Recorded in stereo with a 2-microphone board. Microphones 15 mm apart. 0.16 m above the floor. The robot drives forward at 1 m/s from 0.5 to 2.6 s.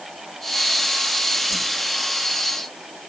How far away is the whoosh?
About 1.6 m.